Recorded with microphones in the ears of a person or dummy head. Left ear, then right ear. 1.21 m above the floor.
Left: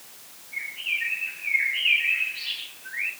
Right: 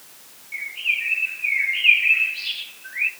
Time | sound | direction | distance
0.5 | a bird | 65° right (ahead or behind) | 9 m